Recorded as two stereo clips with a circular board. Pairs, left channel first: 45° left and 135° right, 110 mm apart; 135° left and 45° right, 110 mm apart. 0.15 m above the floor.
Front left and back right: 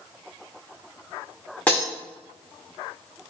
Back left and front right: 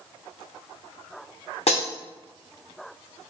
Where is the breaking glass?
125° left, 1.5 m.